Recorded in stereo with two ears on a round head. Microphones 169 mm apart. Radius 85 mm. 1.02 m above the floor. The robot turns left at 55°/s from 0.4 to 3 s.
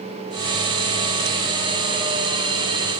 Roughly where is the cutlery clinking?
I don't hear cutlery clinking.